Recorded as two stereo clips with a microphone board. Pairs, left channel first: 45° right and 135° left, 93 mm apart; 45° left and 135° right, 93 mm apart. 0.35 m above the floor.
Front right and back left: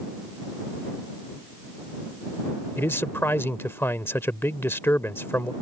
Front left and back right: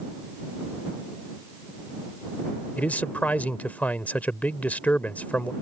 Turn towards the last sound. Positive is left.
turn(degrees=-10)